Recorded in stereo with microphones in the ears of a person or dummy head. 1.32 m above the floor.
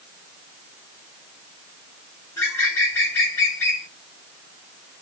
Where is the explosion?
I don't hear an explosion.